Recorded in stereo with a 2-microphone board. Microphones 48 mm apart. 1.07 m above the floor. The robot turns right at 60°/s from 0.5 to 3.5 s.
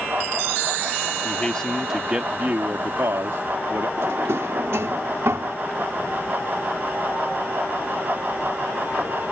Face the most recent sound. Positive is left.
turn(degrees=-70)  # may be behind; listen again after turning